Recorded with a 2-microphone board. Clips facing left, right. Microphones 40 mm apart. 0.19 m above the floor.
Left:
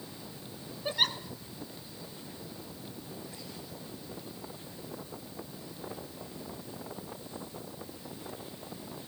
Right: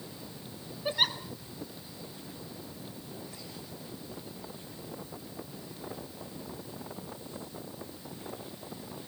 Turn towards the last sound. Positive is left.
turn(degrees=-5)  # may be behind; listen again after turning